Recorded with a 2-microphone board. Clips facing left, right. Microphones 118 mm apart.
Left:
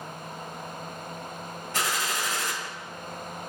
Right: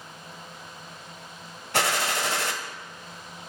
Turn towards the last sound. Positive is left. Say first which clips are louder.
# right 4 dB
turn(degrees=-70)  # may be behind; listen again after turning